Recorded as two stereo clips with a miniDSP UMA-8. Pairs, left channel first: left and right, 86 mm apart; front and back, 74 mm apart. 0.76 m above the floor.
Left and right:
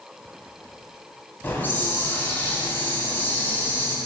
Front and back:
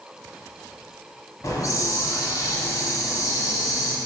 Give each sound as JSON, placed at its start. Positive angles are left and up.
{"t": 1.4, "sound": "a hiss", "azimuth_deg": 30, "distance_m": 1.0}